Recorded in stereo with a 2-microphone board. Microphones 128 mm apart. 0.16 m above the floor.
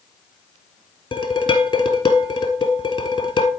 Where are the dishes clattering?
35° left (ahead or behind), 1.7 m.